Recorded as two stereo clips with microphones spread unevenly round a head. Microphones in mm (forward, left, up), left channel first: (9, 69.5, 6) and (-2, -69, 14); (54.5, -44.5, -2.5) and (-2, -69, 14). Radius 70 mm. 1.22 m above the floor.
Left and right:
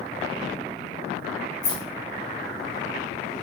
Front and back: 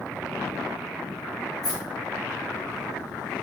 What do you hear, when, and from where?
1.6 s keys jangling: 55° left, 0.8 m